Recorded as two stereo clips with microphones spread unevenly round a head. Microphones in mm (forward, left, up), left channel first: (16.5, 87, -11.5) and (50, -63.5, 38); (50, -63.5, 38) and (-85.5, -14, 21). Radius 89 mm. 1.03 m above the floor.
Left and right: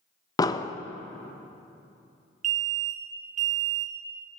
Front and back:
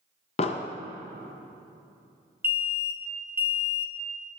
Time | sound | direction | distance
0.4 | an explosion | 35° left | 0.5 m
2.4 | an alarm | 130° right | 1.3 m